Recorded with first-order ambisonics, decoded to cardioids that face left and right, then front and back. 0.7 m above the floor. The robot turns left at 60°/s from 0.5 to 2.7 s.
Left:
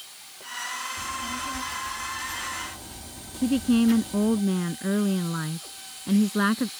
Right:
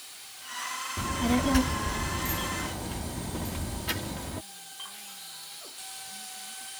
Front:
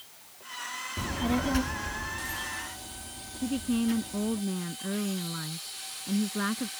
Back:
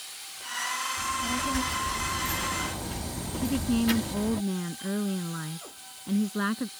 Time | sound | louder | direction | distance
1.0 | a child speaking | right 2 dB, back 2 dB | 40° right | ?
3.4 | a woman speaking | left 15 dB, back 2 dB | 100° left | ?